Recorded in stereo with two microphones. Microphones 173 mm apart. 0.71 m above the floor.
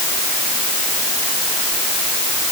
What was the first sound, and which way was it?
Only background noise.